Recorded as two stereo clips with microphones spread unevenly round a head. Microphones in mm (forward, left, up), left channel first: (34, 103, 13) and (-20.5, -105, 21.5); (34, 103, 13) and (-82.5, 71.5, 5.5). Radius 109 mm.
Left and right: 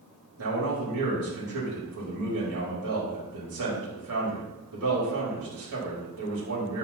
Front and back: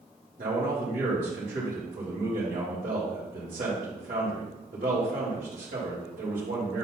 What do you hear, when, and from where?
0.4 s a man speaking: 125° right, 3.5 m